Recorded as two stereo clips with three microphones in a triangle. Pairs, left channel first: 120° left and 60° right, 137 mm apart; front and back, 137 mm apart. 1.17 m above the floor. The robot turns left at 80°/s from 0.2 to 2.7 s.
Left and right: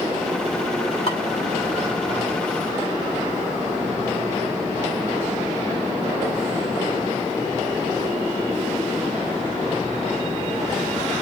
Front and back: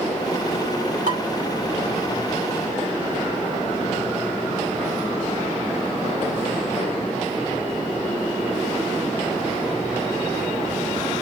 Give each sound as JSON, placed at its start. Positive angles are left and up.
{"t": 1.1, "sound": "dishes clattering", "azimuth_deg": 160, "distance_m": 2.5}